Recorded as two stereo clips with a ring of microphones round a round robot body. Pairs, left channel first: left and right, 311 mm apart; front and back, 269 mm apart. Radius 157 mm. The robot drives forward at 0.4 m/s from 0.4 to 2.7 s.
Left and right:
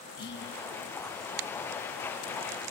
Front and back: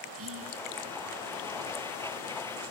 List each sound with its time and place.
0.2 s whispering: 145° left, 5.5 m